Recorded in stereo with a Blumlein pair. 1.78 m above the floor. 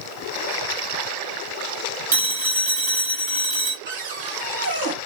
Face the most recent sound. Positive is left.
turn(degrees=-65)